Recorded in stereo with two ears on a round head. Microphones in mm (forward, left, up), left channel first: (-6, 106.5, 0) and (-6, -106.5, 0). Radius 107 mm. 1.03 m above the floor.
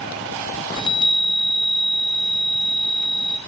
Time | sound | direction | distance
0.8 | a chime | 20° left (ahead or behind) | 1.2 m